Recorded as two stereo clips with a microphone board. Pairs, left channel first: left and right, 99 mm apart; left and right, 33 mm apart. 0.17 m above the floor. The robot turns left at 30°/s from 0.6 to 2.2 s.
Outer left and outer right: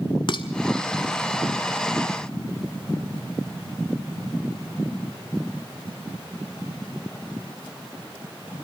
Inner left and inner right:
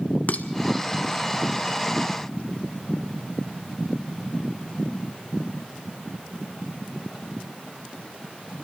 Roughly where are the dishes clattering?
Left.